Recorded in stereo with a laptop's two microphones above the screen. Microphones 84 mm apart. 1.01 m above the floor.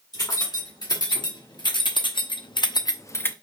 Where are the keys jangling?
55° left (ahead or behind), 1.8 m; by 3.3 s 25° left (ahead or behind), 0.6 m.